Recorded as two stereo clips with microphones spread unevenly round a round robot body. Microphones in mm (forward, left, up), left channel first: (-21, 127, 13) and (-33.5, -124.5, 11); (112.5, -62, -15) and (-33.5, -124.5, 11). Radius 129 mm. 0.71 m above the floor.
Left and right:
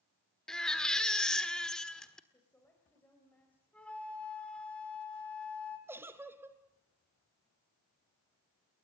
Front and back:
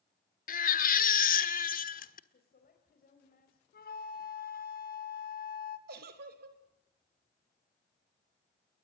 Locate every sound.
0.5 s a baby crying: straight ahead, 1.5 m
2.3 s a woman speaking: 5° left, 4 m
3.7 s a flute: straight ahead, 2.5 m
5.9 s a giggle: 175° right, 1.7 m